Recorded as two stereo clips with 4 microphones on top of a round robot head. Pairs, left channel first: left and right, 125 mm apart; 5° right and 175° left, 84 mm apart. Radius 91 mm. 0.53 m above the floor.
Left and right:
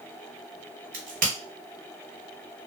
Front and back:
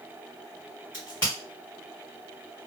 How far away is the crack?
About 1.3 m.